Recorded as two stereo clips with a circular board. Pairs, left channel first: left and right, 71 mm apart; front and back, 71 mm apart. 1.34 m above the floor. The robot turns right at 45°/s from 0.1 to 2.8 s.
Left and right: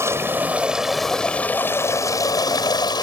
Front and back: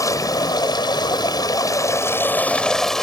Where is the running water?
40° right; by 3.0 s 85° left.